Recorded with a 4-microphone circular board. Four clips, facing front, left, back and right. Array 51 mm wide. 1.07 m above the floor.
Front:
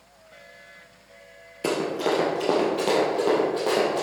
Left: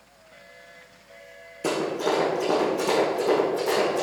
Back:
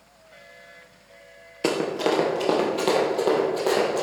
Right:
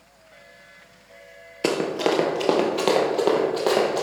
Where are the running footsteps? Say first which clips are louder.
Right 3 dB, back 1 dB; 120° right, 1.4 m; by 4.0 s 90° right, 2.5 m.